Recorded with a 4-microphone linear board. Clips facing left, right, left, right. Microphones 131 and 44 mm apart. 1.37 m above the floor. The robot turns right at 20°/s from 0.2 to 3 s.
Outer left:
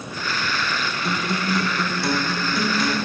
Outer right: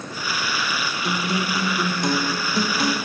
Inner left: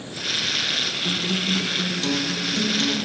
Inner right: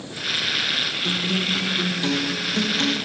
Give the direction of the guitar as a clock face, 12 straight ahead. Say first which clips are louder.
Even, even; 6 o'clock.